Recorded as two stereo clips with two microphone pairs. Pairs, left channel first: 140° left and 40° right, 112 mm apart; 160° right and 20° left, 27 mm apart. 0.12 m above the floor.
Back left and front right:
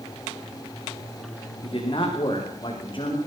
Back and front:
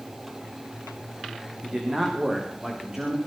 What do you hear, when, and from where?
1.6 s a man speaking: 95° left, 9 m